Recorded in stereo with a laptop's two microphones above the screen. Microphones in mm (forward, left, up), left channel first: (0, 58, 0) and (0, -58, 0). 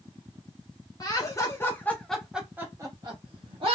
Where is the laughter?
30° left (ahead or behind), 1.0 m; by 3.8 s 50° right (ahead or behind), 0.9 m.